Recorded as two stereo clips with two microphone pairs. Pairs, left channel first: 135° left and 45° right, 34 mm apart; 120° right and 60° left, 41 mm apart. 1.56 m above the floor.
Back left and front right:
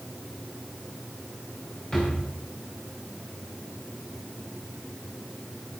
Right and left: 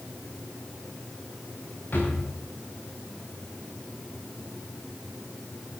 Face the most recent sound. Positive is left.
turn(degrees=-165)